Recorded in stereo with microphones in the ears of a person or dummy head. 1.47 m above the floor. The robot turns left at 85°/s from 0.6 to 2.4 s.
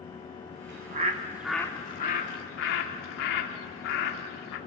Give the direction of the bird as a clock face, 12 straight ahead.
4 o'clock.